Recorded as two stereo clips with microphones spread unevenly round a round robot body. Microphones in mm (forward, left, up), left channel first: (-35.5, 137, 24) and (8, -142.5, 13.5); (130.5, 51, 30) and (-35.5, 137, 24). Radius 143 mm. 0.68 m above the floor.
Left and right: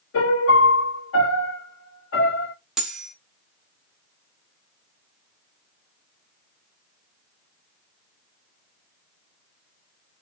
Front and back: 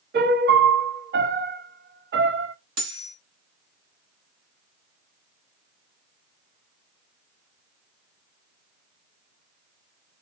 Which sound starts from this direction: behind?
Cutlery clinking, at 2.8 s.